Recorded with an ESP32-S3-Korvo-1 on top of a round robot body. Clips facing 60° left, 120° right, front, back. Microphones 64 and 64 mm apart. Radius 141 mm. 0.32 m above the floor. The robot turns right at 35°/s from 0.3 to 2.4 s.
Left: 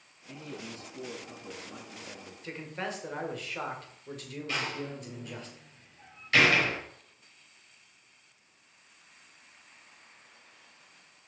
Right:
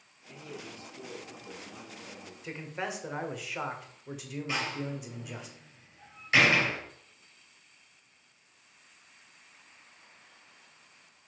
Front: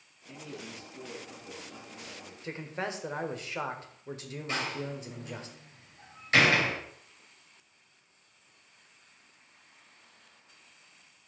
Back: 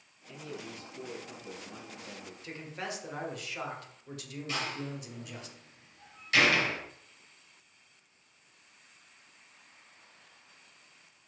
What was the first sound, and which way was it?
A man speaking, 60° left.